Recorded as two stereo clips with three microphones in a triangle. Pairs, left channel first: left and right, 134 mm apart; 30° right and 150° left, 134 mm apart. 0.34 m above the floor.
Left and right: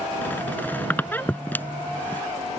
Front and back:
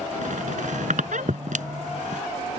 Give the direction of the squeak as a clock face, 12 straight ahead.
6 o'clock.